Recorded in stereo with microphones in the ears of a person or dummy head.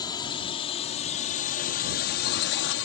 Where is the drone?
20° left (ahead or behind); by 2.9 s 60° left (ahead or behind).